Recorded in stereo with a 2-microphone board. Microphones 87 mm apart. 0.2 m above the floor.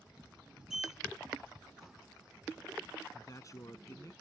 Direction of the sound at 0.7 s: 5° right (ahead or behind).